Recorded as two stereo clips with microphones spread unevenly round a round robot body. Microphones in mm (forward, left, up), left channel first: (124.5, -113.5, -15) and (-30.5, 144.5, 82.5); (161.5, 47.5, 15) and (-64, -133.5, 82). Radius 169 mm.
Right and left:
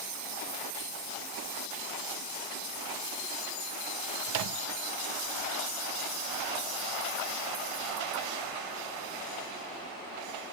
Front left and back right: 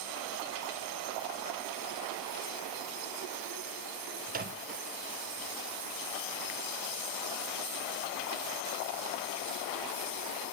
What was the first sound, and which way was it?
A microwave, 150° left.